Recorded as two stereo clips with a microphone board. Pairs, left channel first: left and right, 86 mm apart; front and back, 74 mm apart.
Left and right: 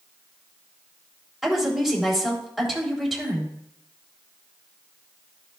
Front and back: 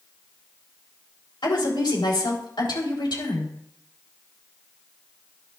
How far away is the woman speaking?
About 3.5 m.